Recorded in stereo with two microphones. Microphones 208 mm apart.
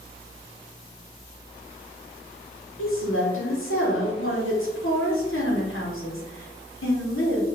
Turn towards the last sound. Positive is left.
turn(degrees=80)